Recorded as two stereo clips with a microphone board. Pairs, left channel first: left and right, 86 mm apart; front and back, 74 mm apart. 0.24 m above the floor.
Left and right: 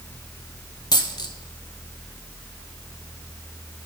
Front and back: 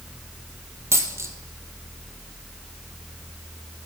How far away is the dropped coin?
About 1.1 m.